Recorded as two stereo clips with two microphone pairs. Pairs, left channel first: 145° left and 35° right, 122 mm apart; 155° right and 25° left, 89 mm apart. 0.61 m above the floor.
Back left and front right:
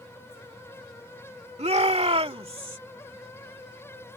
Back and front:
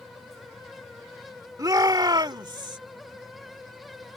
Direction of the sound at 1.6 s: 15° right.